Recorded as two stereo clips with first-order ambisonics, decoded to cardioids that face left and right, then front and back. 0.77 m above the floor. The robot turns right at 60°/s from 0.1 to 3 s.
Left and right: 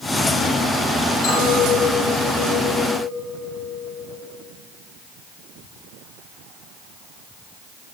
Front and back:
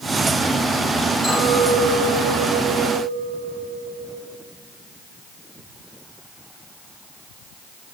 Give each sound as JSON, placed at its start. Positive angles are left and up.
{"t": 1.2, "sound": "a clink", "azimuth_deg": 75, "distance_m": 5.0}